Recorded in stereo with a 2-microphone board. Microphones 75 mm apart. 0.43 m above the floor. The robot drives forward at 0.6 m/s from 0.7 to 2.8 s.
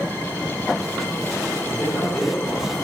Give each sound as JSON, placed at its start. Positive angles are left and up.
{"t": 1.6, "sound": "a man speaking", "side_deg": 20, "distance_m": 1.5}